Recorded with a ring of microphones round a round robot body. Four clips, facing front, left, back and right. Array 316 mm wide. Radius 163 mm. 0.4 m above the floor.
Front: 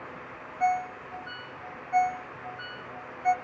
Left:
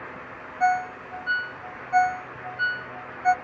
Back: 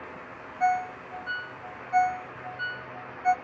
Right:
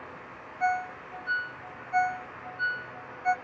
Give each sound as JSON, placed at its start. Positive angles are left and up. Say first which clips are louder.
{"t": 0.6, "sound": "a ringtone", "louder": "left 6 dB, back 1 dB", "azimuth_deg": 90, "distance_m": 0.7}